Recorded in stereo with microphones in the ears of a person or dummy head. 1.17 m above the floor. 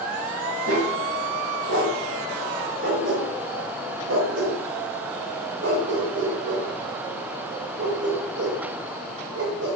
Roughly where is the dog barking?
Right.